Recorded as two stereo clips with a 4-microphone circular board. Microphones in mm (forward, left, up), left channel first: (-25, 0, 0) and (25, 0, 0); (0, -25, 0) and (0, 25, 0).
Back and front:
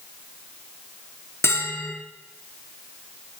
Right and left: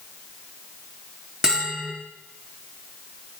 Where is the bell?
165° left, 3 m.